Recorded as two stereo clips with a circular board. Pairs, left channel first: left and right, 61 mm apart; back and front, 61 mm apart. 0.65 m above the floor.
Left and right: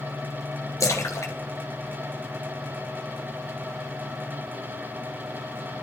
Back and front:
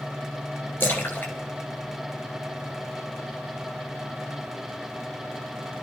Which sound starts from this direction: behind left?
A splash, at 0.8 s.